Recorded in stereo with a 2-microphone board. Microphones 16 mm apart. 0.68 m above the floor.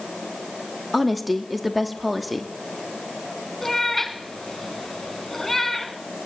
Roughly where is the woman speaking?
Centre.